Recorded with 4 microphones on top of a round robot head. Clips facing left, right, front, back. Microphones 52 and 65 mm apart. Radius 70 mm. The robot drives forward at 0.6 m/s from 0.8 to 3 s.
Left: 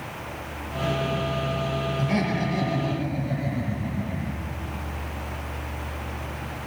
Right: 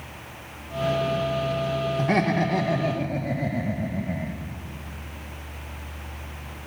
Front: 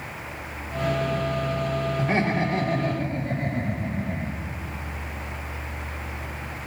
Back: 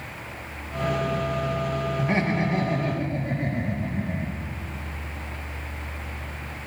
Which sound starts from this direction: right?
Laughter, at 2.0 s.